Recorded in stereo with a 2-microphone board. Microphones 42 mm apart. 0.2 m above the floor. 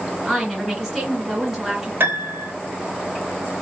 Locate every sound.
0.2 s a woman speaking: 5° right (ahead or behind), 2.5 m
2.0 s a piano: 65° right (ahead or behind), 0.9 m